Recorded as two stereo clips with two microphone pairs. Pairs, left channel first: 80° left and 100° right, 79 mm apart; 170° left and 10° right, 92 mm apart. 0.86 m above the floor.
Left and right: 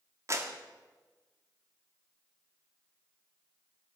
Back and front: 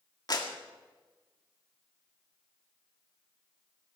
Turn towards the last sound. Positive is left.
turn(degrees=-150)